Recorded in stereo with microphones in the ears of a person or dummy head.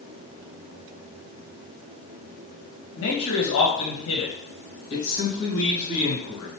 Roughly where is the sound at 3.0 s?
Left.